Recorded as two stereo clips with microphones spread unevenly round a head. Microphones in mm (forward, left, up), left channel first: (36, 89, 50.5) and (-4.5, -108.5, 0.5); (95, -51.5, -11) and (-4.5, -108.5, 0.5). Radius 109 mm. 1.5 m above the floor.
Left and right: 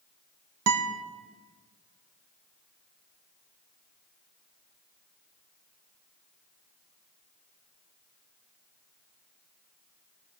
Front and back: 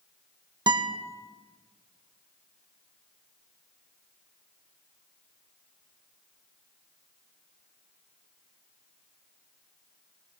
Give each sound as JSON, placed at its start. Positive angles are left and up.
{"t": 0.7, "sound": "a guitar", "azimuth_deg": -100, "distance_m": 1.4}